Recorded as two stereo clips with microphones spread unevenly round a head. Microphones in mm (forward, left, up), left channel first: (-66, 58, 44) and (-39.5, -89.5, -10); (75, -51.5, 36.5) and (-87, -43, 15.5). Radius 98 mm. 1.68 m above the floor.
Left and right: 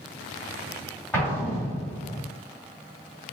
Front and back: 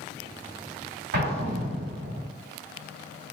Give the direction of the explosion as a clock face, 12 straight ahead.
7 o'clock.